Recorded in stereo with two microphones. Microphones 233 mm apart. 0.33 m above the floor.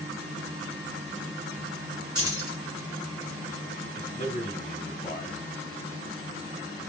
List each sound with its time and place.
2.1 s keys jangling: 70° right (ahead or behind), 2.5 m
4.0 s a man speaking: 35° left (ahead or behind), 1.7 m